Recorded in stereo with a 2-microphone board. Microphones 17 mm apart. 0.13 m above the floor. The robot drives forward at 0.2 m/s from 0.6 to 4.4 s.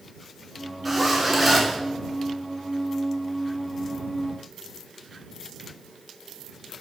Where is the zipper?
Centre (ahead or behind), 1.9 m.